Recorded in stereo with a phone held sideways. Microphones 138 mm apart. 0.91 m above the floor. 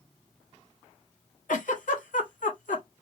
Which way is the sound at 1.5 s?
70° left (ahead or behind).